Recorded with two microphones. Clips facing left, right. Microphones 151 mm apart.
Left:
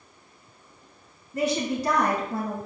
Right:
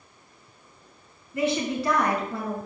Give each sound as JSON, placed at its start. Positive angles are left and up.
{"t": 1.3, "sound": "a woman speaking", "side_deg": 40, "distance_m": 3.0}